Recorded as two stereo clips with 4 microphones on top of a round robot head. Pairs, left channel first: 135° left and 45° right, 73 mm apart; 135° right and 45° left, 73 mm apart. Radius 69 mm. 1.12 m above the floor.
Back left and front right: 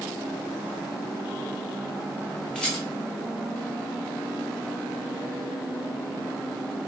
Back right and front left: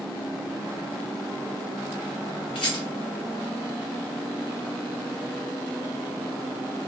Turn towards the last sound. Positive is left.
turn(degrees=-145)